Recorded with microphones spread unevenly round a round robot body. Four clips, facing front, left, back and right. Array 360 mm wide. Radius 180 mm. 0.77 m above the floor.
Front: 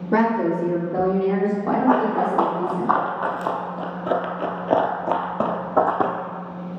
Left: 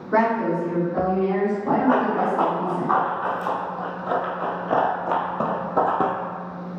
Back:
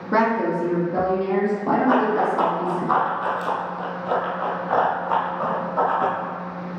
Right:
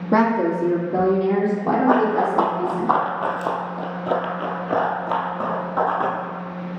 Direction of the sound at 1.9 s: 85° right.